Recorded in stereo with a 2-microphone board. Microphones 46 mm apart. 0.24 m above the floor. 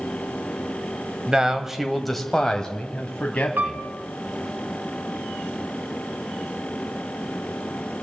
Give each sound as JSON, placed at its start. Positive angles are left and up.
{"t": 1.3, "sound": "a man speaking", "side_deg": -20, "distance_m": 0.9}
{"t": 3.6, "sound": "a piano", "side_deg": -45, "distance_m": 0.9}